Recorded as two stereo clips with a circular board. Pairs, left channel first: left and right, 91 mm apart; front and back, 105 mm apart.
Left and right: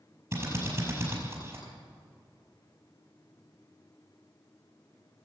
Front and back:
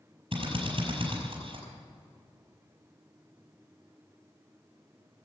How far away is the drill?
About 5 m.